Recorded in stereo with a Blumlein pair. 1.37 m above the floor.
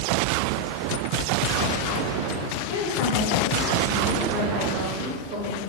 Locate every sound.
2.7 s a woman speaking: 50° left, 1.3 m; by 5.6 s 35° right, 1.9 m